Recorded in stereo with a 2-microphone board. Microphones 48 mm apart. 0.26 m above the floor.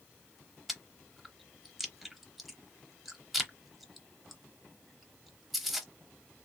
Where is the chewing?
Centre (ahead or behind), 0.8 m.